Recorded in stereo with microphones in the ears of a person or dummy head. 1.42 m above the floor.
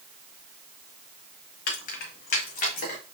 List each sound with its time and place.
1.7 s keys jangling: 60° left (ahead or behind), 0.9 m; by 3.0 s 55° left (ahead or behind), 1.5 m